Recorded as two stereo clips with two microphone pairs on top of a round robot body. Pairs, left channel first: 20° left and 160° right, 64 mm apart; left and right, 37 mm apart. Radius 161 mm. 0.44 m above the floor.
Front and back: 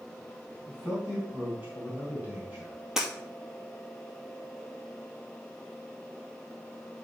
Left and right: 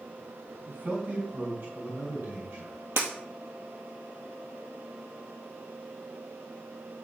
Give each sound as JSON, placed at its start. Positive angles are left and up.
{"t": 0.7, "sound": "a man speaking", "azimuth_deg": -95, "distance_m": 3.5}
{"t": 3.0, "sound": "breaking glass", "azimuth_deg": -80, "distance_m": 2.5}